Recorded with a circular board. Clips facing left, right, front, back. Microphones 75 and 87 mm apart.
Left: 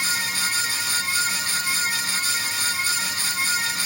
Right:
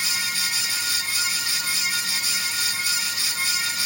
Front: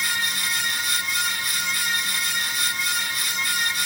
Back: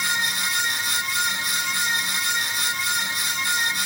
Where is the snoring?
I don't hear snoring.